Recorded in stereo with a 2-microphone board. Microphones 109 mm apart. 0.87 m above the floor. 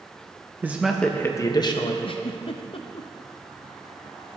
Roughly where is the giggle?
Left.